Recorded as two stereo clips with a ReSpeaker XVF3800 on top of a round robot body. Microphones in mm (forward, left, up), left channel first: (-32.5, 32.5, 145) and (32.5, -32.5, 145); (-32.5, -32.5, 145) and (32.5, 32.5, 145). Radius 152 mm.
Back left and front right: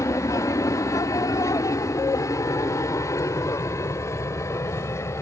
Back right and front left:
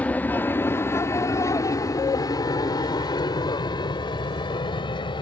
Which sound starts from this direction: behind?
An aircraft, at 0.0 s.